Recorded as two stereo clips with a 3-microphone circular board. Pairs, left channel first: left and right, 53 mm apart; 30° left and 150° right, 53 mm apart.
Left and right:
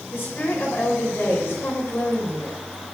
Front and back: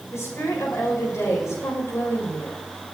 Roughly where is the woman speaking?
Ahead left.